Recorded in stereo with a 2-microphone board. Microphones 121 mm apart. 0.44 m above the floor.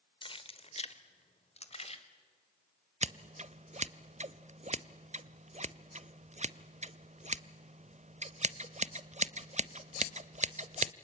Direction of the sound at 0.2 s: 40° left (ahead or behind).